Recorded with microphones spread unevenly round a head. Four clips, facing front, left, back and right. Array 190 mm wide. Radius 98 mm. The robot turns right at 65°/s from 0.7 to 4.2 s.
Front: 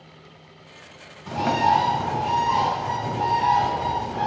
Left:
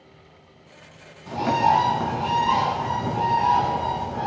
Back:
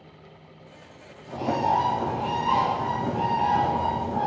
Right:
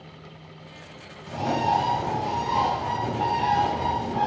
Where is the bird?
10° left, 5 m; by 4.3 s 155° right, 5 m.